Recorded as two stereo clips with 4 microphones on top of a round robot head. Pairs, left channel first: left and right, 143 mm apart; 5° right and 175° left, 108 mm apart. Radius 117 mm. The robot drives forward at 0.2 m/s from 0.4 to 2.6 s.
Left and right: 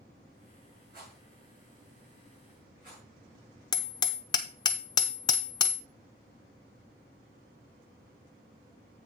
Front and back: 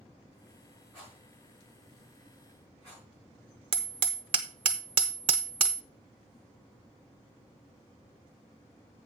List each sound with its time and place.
0.9 s a rattle: 110° right, 5.5 m
3.7 s hammering: 145° left, 0.5 m